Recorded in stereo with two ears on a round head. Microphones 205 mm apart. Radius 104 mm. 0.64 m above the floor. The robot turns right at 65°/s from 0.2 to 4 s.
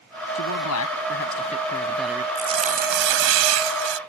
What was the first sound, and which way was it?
A man speaking, 70° left.